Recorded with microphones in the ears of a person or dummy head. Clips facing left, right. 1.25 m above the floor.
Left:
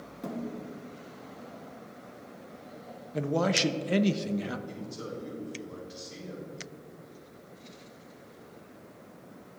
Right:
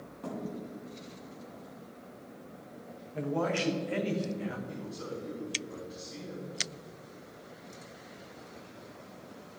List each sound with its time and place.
0.2 s a thud: 35° left (ahead or behind), 3.5 m
3.1 s a man speaking: 60° left (ahead or behind), 0.8 m
4.7 s a man speaking: 45° left (ahead or behind), 3.5 m